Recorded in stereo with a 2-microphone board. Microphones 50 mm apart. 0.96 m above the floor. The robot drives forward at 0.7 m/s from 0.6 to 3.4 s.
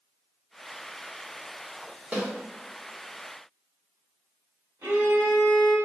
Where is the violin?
65° right (ahead or behind), 1.1 m.